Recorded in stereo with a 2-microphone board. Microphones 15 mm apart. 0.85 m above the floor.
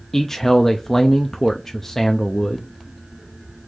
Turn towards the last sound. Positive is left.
turn(degrees=25)  # may be behind; listen again after turning